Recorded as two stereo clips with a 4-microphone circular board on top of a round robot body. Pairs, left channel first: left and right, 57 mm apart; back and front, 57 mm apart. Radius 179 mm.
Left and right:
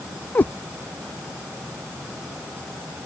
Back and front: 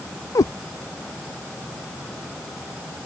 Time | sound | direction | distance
0.3 | a cat meowing | 150° left | ?